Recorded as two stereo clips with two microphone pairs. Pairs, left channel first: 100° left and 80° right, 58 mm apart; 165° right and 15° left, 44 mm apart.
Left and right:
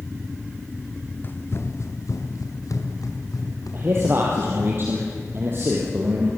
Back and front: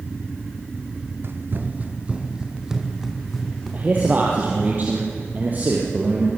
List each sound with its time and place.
1.2 s running footsteps: 45° left, 1.9 m; by 4.7 s 115° left, 5.5 m
3.7 s a man speaking: 35° right, 3.5 m